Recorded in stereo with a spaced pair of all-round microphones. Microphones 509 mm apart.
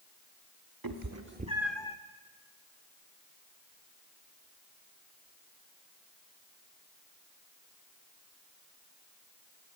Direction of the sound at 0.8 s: 45° right (ahead or behind).